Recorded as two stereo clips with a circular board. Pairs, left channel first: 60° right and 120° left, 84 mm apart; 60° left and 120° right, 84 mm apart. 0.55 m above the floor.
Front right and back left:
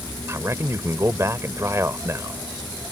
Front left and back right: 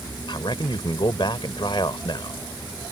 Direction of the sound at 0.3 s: 65° left.